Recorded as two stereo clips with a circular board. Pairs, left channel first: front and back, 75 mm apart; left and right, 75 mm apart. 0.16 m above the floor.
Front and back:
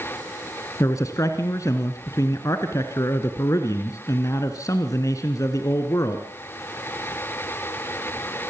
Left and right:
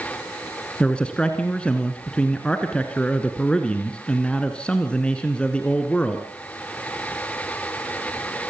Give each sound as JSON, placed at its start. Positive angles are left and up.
{"t": 0.8, "sound": "a man speaking", "azimuth_deg": 20, "distance_m": 1.5}